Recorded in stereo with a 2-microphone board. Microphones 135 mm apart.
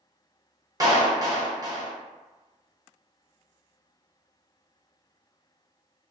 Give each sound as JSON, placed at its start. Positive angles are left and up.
{"t": 0.8, "sound": "a clap", "side_deg": -30, "distance_m": 0.8}